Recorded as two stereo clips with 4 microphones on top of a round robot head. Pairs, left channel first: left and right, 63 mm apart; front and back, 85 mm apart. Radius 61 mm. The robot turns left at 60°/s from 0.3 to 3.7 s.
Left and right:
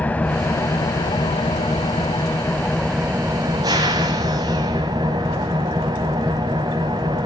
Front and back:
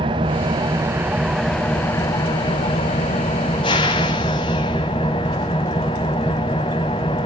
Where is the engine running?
155° left, 1.2 m; by 7.3 s 50° right, 1.2 m.